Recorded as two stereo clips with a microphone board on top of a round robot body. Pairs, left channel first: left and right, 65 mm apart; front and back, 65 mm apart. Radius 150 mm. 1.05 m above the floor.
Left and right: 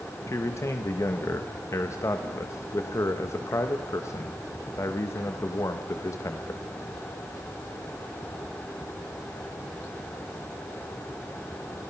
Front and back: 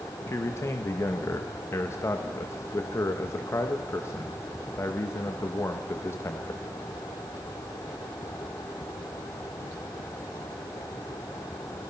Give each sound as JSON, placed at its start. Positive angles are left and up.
{"t": 0.3, "sound": "a man speaking", "azimuth_deg": 50, "distance_m": 1.3}